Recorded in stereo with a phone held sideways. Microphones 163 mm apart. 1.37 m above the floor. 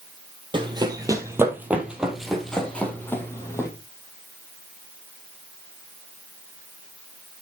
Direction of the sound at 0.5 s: 30° right (ahead or behind).